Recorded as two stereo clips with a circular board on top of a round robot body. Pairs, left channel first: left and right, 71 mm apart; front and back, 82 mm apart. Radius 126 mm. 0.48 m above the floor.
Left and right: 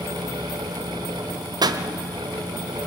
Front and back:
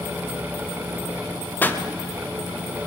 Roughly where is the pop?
Ahead right.